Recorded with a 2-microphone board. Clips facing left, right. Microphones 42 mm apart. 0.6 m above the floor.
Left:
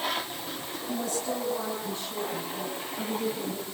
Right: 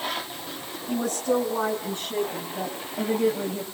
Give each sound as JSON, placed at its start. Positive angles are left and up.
{"t": 0.9, "sound": "a woman speaking", "side_deg": -45, "distance_m": 6.5}